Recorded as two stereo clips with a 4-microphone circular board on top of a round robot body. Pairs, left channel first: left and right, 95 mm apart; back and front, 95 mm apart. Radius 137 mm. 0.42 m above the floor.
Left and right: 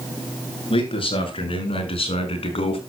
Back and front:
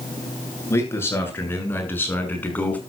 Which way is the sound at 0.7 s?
115° left.